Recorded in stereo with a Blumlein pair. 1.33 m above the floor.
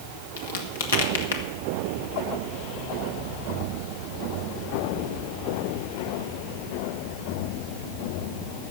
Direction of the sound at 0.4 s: 60° left.